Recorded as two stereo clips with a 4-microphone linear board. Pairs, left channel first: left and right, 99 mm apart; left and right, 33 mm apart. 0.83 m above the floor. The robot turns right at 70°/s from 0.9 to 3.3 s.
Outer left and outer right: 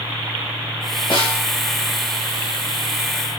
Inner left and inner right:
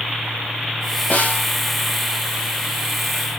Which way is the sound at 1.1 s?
55° left (ahead or behind).